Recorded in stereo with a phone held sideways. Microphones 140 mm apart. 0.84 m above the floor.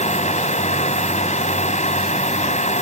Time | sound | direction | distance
0.0 | a fan | 60° left (ahead or behind) | ?